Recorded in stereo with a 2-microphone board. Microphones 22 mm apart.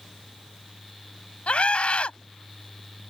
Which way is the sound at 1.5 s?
60° left (ahead or behind).